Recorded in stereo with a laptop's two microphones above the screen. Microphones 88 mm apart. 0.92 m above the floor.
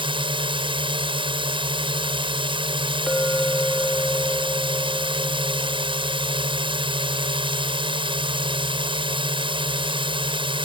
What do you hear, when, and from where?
0.0 s a drone: 75° right (ahead or behind)
3.1 s a clink: 10° left (ahead or behind)